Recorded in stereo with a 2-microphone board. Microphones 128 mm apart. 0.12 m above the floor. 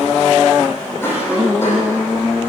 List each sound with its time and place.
1.0 s a cough: 20° left (ahead or behind), 5.5 m